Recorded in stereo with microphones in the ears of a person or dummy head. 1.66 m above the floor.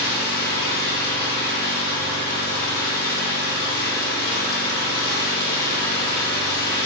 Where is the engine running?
55° left (ahead or behind), 1.6 m.